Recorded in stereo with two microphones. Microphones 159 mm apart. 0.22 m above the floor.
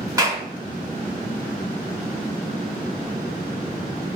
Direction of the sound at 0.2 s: 20° right (ahead or behind).